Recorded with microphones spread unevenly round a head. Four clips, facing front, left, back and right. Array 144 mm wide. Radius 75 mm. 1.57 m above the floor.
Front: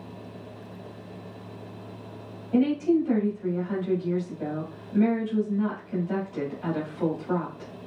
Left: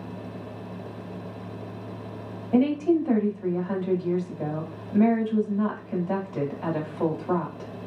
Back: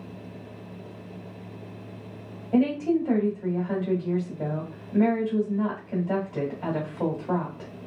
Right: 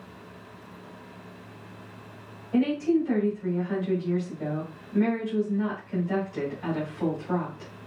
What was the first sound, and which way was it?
A woman speaking, 140° left.